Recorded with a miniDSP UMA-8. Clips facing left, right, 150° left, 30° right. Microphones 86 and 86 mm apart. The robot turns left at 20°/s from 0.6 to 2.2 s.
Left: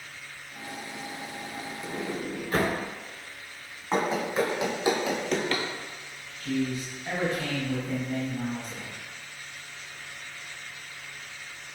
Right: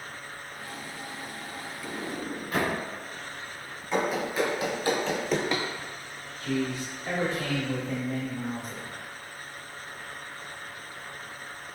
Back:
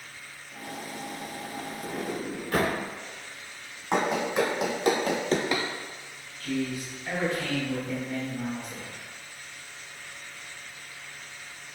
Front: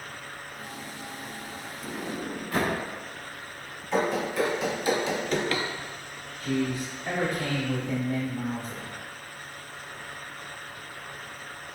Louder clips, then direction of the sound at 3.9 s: Left 1 dB, back 1 dB; 145° left.